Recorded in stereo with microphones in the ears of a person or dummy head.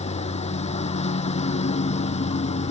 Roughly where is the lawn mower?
Left.